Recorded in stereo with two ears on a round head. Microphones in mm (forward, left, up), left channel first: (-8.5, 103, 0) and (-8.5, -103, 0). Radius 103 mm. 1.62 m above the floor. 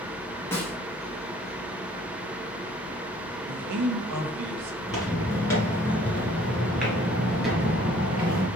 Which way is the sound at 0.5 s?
10° left (ahead or behind).